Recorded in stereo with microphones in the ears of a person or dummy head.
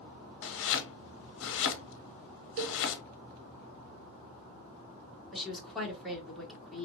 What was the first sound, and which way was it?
Chopping, 60° left (ahead or behind).